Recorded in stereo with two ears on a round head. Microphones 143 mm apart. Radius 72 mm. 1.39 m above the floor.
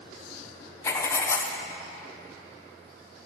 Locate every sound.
0.8 s writing: 15° left (ahead or behind), 0.6 m